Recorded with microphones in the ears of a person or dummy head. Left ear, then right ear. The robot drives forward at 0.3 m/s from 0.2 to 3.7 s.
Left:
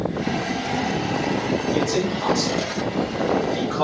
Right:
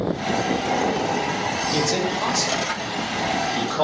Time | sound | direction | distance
1.7 | a man speaking | 60° right (ahead or behind) | 0.6 m